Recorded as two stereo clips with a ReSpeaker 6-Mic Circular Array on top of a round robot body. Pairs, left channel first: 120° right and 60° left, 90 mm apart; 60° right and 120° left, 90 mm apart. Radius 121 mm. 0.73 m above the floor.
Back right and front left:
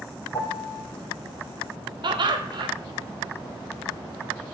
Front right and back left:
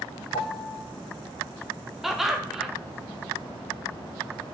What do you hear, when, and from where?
0.3 s a piano: 70° right, 0.6 m
2.0 s laughter: 35° left, 1.2 m